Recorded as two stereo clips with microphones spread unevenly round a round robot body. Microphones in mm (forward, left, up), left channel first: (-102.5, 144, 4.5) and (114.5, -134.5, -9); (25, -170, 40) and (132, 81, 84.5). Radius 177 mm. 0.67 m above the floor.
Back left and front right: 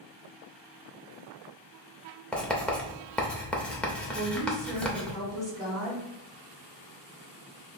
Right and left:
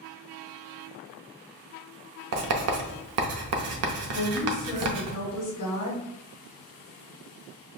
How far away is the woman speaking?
About 1.8 m.